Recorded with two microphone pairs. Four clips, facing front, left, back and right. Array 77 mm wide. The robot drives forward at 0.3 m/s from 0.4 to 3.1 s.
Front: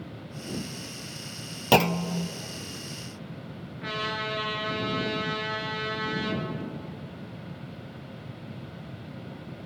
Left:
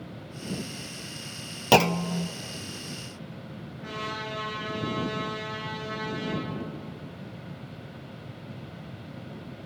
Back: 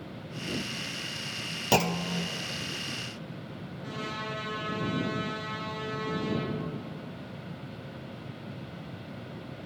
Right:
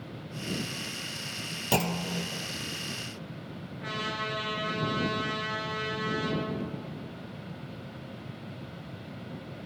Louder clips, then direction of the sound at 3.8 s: Right 1 dB, front 5 dB; 25° right.